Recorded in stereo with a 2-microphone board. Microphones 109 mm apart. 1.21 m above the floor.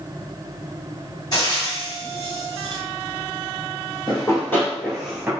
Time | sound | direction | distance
1.3 | frying | 40° left (ahead or behind) | 1.4 m
4.1 | running footsteps | 40° left (ahead or behind) | 1.4 m